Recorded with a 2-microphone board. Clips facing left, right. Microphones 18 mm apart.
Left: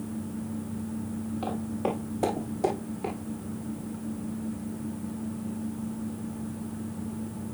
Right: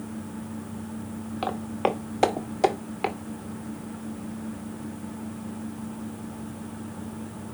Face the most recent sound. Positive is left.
turn(degrees=-90)